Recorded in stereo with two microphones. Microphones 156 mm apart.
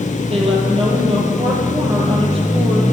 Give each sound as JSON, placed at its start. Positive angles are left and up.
{"t": 0.3, "sound": "a woman speaking", "side_deg": -40, "distance_m": 6.5}